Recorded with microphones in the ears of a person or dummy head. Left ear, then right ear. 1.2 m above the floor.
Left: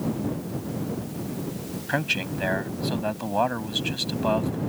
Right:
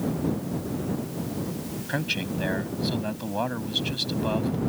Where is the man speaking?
30° left (ahead or behind).